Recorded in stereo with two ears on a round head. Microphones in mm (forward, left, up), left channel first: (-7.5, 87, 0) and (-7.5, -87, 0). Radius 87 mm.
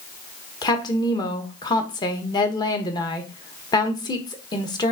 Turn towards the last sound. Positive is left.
turn(degrees=20)  # may be behind; listen again after turning